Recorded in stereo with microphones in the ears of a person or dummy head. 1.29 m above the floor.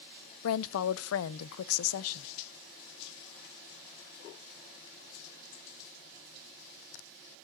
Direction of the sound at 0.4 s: 80° left.